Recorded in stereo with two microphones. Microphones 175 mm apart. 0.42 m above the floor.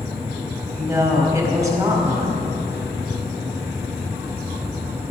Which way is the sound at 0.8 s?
20° right (ahead or behind).